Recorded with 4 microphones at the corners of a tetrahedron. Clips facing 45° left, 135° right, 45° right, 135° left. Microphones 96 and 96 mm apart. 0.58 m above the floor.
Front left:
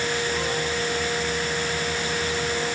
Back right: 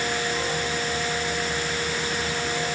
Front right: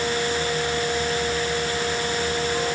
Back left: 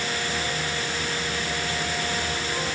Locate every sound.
Only background noise.